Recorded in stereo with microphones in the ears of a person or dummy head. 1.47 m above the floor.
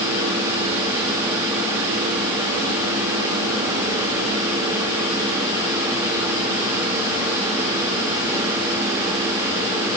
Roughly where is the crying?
No crying in this recording.